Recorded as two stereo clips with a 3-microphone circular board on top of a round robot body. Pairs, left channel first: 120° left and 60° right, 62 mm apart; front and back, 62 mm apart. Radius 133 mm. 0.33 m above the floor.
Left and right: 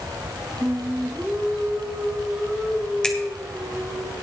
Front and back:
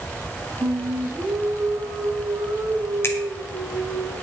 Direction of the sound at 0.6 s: 135° right.